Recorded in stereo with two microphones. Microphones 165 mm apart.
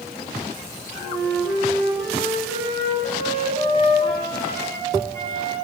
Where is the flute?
20° left (ahead or behind), 2 m.